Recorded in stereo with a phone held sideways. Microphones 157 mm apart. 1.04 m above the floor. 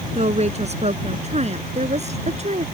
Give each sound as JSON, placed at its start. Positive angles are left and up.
{"t": 0.1, "sound": "a woman speaking", "side_deg": -45}